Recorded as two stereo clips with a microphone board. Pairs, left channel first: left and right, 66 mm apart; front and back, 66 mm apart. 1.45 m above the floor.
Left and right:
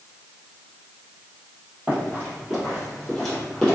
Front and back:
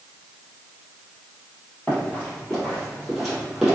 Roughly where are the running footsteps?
Ahead right.